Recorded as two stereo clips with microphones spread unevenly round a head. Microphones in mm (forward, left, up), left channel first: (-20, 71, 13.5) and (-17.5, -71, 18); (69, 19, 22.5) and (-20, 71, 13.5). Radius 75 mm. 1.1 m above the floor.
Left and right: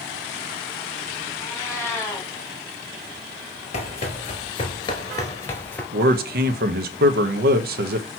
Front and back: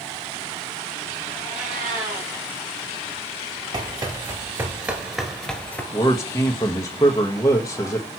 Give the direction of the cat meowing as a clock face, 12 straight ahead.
7 o'clock.